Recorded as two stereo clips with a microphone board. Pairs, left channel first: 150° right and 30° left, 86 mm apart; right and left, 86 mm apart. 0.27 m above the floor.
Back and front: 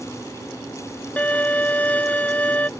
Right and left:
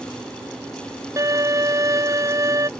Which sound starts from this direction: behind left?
A violin, at 1.2 s.